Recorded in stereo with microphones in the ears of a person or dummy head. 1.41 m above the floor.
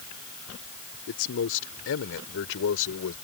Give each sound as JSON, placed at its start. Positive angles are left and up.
{"t": 1.1, "sound": "a man speaking", "side_deg": 55}